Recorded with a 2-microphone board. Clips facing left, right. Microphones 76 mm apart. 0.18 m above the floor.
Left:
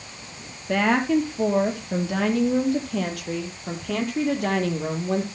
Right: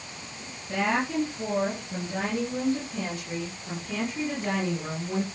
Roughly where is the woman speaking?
Left.